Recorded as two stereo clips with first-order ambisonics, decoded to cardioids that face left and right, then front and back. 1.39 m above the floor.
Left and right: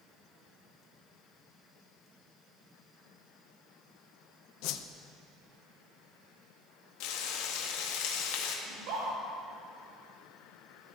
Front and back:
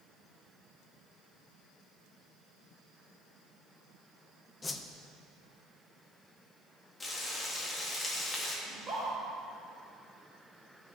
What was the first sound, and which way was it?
A whoosh, 75° left.